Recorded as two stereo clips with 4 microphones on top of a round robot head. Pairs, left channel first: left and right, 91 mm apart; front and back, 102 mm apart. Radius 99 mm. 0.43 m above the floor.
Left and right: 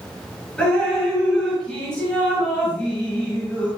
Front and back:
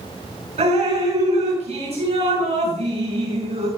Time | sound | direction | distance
0.6 | dripping | 170° left | 9.5 m